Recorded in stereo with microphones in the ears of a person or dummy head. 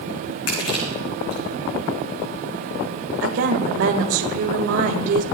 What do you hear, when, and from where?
0.5 s crushing: 75° left (ahead or behind), 6 m
3.2 s a woman speaking: 70° right (ahead or behind), 1.7 m